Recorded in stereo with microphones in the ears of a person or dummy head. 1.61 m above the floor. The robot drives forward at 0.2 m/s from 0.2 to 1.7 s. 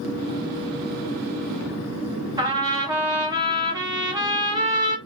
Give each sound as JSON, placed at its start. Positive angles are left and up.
{"t": 2.4, "sound": "a trumpet", "side_deg": -20, "distance_m": 0.7}